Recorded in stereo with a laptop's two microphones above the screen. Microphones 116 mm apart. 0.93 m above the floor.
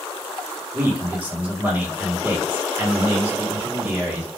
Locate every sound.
0.7 s a man speaking: 15° right (ahead or behind), 0.8 m